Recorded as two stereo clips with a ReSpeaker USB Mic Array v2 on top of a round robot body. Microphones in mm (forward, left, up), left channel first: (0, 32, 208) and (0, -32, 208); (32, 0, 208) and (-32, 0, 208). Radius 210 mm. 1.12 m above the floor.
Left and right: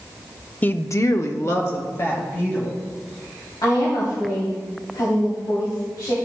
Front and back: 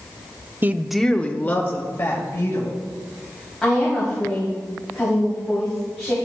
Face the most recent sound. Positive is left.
turn(degrees=85)